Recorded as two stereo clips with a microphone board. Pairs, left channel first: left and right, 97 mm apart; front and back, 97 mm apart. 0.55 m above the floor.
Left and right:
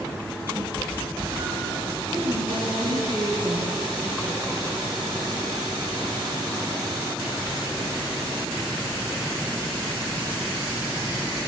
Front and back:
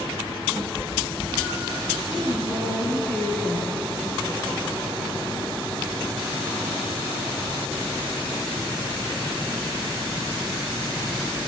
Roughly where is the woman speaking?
Right.